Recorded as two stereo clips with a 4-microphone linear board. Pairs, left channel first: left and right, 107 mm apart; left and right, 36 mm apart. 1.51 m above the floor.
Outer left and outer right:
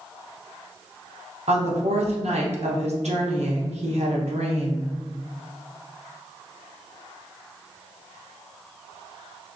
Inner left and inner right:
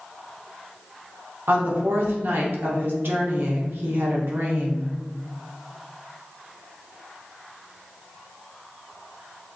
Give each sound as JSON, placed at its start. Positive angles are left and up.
{"t": 1.5, "sound": "a woman speaking", "side_deg": -70, "distance_m": 0.7}